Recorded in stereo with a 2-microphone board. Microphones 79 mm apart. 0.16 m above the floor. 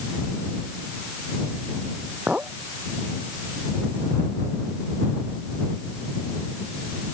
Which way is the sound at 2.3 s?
15° right (ahead or behind).